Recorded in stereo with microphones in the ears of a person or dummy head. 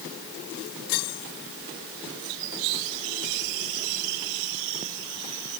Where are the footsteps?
No footsteps in this recording.